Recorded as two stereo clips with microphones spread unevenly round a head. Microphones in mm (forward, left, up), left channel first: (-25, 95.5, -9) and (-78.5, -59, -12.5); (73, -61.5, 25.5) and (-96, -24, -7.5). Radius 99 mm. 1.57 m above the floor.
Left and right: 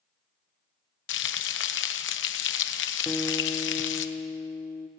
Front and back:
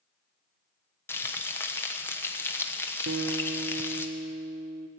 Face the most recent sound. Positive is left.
turn(degrees=150)